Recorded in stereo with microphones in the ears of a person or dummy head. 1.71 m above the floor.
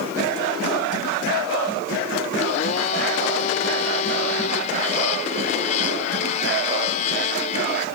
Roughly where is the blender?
Left.